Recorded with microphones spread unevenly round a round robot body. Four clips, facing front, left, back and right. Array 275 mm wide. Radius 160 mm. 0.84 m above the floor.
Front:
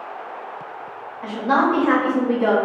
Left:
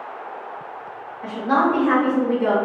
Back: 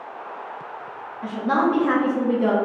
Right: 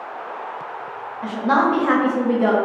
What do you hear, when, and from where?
1.2 s a woman speaking: 140° right, 1.6 m